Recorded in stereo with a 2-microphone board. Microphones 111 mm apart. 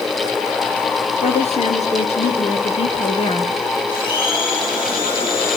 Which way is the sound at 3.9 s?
45° left (ahead or behind).